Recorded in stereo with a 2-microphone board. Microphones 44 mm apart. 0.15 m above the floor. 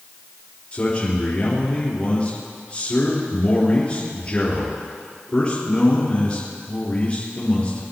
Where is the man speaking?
30° left (ahead or behind), 4 m.